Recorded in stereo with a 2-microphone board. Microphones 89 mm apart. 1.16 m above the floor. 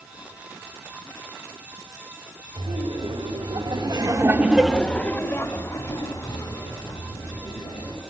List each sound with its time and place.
2.6 s laughter: 90° right, 2.5 m; by 8.0 s 55° left (ahead or behind), 5 m